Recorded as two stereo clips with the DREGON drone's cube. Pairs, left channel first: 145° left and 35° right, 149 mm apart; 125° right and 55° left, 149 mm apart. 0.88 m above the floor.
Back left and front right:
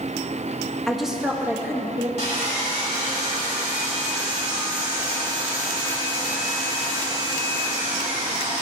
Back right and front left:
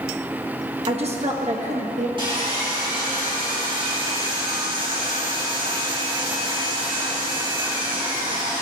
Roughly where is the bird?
No bird in this recording.